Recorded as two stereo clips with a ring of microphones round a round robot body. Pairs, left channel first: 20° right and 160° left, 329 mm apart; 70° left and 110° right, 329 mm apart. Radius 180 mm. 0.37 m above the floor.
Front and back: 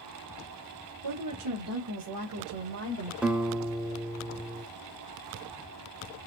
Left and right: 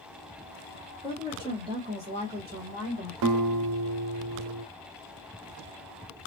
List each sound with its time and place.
1.0 s a woman speaking: 165° left, 2.0 m; by 3.1 s 155° right, 2.0 m
3.2 s a guitar: 115° right, 0.8 m